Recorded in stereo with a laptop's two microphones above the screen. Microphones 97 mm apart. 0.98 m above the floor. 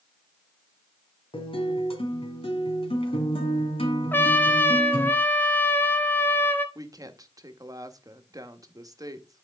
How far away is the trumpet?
About 0.7 m.